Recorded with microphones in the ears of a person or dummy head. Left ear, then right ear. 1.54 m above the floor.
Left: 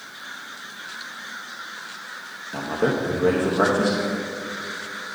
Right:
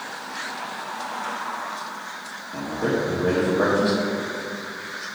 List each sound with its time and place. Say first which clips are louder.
2.5 s a man speaking: left 2 dB; 80° left, 1.2 m